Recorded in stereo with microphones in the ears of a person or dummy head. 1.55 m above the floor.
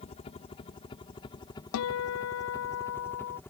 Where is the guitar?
80° left.